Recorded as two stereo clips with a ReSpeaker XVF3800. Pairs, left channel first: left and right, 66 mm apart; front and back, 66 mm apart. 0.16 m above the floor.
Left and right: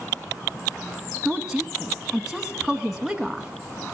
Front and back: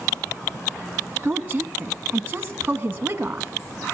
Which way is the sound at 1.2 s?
170° right.